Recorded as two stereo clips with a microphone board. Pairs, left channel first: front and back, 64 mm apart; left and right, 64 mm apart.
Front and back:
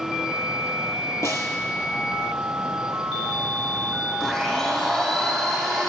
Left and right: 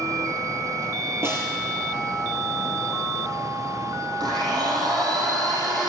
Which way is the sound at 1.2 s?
40° right.